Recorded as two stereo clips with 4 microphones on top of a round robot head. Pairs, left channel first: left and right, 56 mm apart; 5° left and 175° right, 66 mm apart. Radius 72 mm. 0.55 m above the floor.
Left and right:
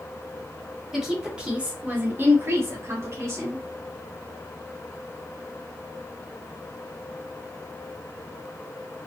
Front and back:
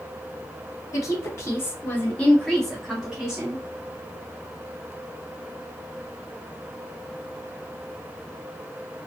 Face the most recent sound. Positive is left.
turn(degrees=-105)